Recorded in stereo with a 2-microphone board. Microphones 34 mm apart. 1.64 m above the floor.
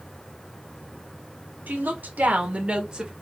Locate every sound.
1.7 s a woman speaking: 65° right (ahead or behind), 1.3 m; by 3.1 s 15° right (ahead or behind), 1.8 m